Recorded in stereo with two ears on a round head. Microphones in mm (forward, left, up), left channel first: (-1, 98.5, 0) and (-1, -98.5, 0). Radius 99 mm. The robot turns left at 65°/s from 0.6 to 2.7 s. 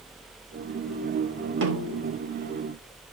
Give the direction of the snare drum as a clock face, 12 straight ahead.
4 o'clock.